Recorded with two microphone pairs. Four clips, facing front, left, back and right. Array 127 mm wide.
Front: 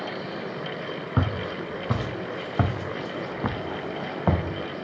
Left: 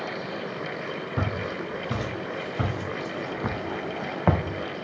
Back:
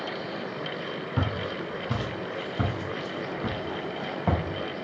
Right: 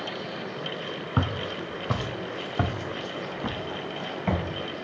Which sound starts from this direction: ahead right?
Footsteps, at 1.2 s.